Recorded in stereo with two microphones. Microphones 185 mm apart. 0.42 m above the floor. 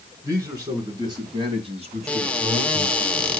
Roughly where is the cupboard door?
Centre.